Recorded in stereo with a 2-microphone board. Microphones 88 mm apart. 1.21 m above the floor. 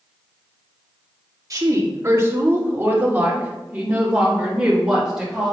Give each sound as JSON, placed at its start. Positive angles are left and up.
{"t": 1.5, "sound": "a woman speaking", "side_deg": -40, "distance_m": 2.0}